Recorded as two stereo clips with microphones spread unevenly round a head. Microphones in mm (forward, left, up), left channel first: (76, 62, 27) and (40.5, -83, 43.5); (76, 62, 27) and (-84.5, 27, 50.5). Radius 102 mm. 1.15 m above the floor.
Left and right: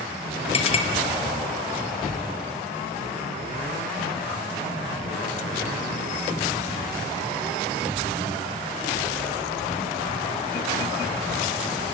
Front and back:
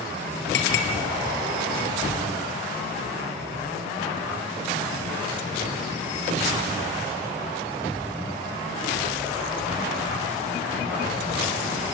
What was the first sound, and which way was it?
A clink, 25° left.